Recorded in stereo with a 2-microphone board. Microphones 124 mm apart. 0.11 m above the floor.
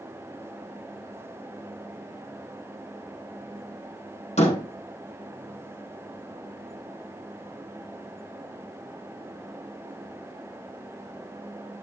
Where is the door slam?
70° left (ahead or behind), 3.5 m.